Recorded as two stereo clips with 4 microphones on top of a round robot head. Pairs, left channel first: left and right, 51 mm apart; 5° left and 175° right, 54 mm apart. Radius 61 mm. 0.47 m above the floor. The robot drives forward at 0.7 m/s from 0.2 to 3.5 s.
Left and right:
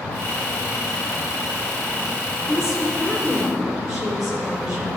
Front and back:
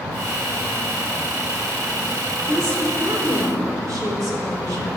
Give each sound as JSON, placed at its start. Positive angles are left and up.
{"t": 2.5, "sound": "a woman speaking", "azimuth_deg": -170, "distance_m": 2.5}